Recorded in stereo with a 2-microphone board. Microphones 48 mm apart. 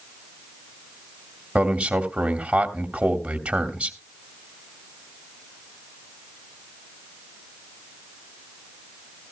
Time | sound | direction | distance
1.6 | a man speaking | 20° right (ahead or behind) | 1.5 m